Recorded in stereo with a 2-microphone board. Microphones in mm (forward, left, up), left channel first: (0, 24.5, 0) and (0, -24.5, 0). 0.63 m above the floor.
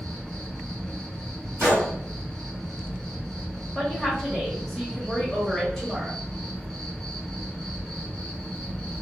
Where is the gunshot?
60° right (ahead or behind), 1.5 m.